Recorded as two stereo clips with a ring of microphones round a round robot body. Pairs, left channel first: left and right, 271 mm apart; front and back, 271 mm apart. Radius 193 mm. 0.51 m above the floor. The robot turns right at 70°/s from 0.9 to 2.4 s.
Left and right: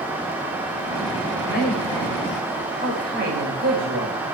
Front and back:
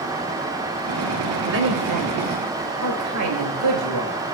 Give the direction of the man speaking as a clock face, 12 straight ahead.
7 o'clock.